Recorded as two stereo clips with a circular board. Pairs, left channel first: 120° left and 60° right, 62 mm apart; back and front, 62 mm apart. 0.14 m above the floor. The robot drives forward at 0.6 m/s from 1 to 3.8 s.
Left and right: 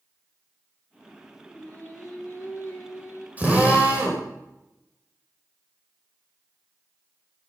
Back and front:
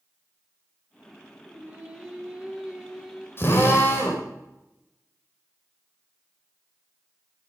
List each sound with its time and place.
1.4 s singing: 60° left, 3 m; by 3.3 s 80° left, 3 m
3.4 s a drill: 125° right, 4.5 m; by 4.2 s 130° right, 4.5 m